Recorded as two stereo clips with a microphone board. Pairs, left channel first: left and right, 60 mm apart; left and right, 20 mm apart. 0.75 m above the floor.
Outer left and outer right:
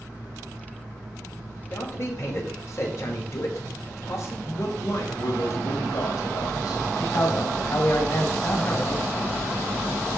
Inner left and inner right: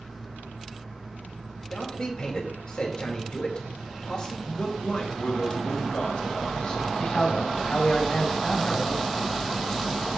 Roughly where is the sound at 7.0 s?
Left.